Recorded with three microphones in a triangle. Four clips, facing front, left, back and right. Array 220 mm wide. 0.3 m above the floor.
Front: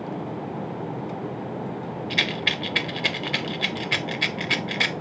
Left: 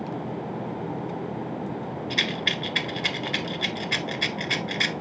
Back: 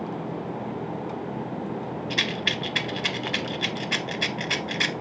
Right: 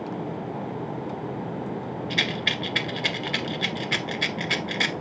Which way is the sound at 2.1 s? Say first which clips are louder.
Right 1 dB, front 2 dB; 30° right.